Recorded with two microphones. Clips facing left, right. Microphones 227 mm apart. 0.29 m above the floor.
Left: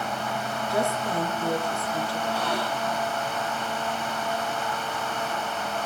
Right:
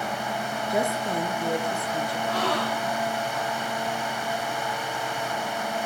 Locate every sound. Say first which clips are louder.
0.7 s a woman speaking: even; 20° right (ahead or behind), 4 m
2.3 s a gasp: right 2 dB; 85° right, 6.5 m